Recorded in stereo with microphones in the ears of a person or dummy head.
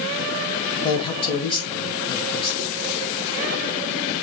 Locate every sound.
0.8 s a man speaking: 25° left (ahead or behind), 1.6 m